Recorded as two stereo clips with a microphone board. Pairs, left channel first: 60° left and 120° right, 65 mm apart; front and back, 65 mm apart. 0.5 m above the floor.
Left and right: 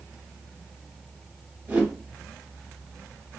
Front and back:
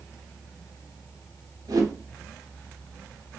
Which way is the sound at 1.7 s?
Straight behind.